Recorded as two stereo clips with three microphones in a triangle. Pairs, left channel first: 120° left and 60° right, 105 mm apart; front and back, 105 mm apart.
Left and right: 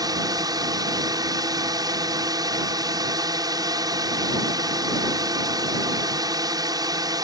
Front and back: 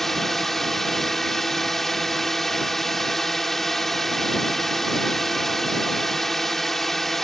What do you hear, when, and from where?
0.0 s a drone: 85° right